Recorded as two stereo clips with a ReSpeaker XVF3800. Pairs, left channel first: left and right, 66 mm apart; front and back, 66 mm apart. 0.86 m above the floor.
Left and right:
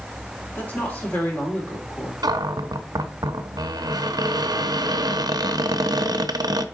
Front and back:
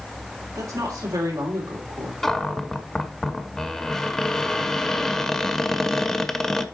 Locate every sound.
0.6 s a woman speaking: 155° left, 2.5 m
2.2 s a cupboard door: 85° right, 0.6 m